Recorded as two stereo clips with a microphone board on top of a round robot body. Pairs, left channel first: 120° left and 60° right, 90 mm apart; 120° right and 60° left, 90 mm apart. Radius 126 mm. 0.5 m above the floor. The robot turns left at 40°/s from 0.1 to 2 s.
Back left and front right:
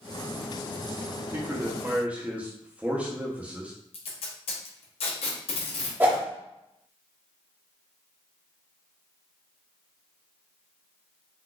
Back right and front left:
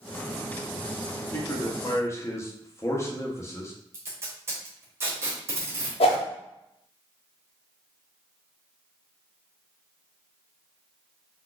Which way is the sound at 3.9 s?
125° left.